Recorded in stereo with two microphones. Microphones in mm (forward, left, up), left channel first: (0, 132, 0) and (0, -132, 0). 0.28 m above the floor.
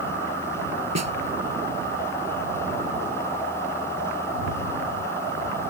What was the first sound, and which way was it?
A snare drum, 80° right.